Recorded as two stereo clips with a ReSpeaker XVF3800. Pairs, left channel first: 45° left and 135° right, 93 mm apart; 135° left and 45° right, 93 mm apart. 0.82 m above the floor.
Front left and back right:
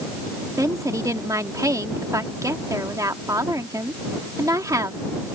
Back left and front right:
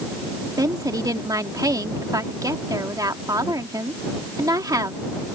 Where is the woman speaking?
90° right.